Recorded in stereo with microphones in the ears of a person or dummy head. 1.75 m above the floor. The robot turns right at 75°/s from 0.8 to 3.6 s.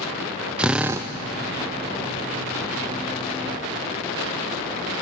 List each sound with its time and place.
0.6 s a drill: 5° right (ahead or behind), 0.5 m; by 1.1 s 20° right (ahead or behind), 0.5 m